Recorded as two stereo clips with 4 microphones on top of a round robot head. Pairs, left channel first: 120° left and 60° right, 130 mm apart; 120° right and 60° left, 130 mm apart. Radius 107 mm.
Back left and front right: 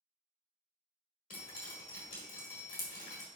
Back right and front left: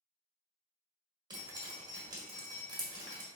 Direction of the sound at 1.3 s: 115° left.